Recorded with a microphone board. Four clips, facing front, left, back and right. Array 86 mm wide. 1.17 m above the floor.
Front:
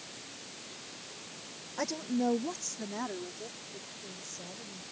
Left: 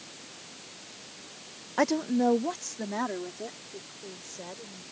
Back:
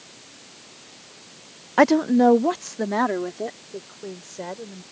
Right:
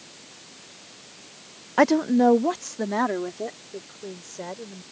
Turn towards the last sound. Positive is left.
turn(degrees=-150)